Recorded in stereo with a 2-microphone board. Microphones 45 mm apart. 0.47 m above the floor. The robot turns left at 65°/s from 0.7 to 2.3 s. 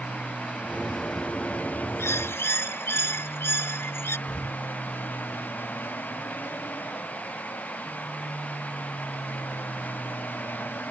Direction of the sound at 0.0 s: 160° right.